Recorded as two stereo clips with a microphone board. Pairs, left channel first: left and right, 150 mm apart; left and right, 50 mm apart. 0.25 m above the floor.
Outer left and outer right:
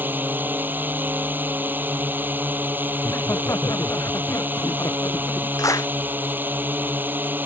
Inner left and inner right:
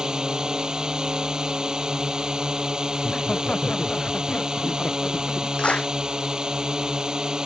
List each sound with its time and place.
0.0 s a drone: 15° right (ahead or behind)
3.0 s laughter: 20° left (ahead or behind)
5.6 s a clap: 20° left (ahead or behind)